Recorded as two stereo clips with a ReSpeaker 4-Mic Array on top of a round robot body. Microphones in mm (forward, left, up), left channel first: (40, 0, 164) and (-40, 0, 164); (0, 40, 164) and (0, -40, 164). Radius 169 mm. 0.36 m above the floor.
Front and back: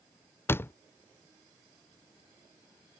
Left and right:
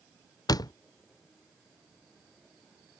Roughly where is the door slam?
Ahead left.